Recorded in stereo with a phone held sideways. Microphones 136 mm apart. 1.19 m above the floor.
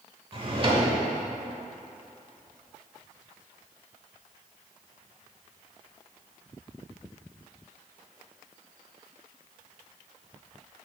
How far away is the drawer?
About 1.1 m.